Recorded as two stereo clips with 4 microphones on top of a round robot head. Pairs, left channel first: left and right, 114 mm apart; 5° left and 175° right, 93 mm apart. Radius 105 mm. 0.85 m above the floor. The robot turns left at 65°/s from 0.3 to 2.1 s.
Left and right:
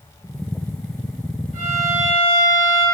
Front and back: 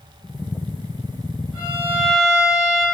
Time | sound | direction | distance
1.5 | a violin | 95° right | 1.3 m